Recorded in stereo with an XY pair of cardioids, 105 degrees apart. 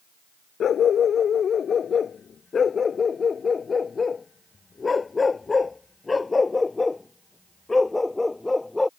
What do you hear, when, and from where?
0.6 s a dog barking: 55° left; by 8.9 s 15° left